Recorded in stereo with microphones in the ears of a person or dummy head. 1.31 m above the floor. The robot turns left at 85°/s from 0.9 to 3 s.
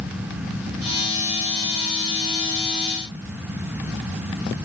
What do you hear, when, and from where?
Only background noise.